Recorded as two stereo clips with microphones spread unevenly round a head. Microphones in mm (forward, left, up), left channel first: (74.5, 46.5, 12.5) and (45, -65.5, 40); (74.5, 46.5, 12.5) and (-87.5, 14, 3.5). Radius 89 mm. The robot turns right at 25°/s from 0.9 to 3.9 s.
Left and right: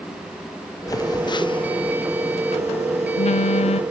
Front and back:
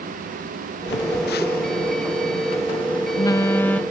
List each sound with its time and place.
0.9 s a phone buzzing: 20° left, 0.6 m; by 3.8 s 95° left, 0.6 m